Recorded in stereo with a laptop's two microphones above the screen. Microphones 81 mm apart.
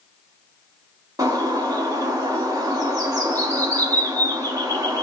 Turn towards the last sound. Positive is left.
turn(degrees=-45)  # may be behind; listen again after turning